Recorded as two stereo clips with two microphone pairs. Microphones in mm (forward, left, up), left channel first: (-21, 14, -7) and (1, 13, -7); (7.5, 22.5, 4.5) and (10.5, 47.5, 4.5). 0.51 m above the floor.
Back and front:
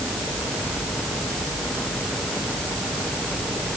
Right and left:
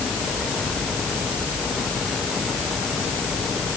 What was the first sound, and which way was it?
Only background noise.